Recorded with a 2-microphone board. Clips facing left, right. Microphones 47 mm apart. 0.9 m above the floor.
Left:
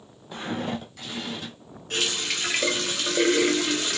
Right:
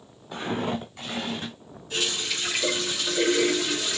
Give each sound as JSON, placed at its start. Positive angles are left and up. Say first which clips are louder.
{"t": 0.3, "sound": "footsteps", "louder": "right 2 dB", "side_deg": -5, "distance_m": 1.3}
{"t": 1.9, "sound": "a running tap", "louder": "left 1 dB", "side_deg": 55, "distance_m": 0.9}